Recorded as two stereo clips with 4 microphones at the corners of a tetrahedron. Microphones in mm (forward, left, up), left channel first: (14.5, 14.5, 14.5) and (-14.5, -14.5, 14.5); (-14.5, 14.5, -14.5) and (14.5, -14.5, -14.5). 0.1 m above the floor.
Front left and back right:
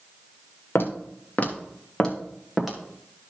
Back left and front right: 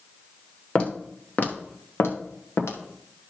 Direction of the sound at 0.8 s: 75° left.